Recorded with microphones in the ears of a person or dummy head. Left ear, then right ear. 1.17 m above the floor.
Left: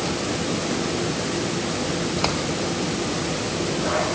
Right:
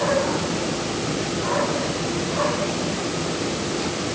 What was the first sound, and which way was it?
Only background noise.